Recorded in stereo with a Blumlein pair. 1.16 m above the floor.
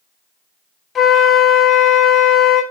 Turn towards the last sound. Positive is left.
turn(degrees=20)